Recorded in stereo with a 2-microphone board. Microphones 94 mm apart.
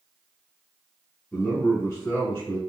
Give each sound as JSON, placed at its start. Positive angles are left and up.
{"t": 1.3, "sound": "a man speaking", "side_deg": 25, "distance_m": 1.5}